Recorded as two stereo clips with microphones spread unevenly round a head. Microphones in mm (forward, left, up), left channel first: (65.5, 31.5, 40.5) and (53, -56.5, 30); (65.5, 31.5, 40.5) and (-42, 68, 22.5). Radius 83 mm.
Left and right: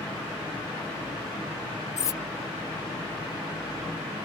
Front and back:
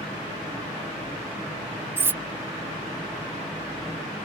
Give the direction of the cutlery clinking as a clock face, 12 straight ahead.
9 o'clock.